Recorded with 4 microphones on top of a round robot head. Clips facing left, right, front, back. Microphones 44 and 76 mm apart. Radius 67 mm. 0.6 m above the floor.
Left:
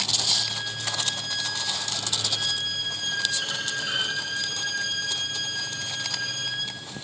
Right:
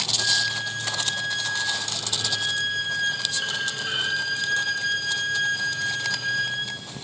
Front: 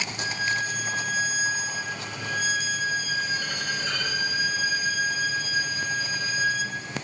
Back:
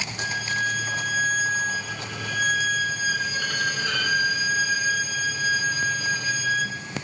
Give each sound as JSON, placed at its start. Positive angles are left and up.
{"t": 0.2, "sound": "a violin", "azimuth_deg": -160, "distance_m": 2.0}